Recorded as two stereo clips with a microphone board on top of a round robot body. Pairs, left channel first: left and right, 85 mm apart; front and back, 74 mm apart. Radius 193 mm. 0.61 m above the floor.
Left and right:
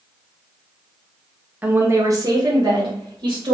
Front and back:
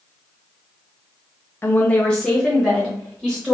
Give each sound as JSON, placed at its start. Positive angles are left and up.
{"t": 1.6, "sound": "a woman speaking", "azimuth_deg": -30, "distance_m": 0.7}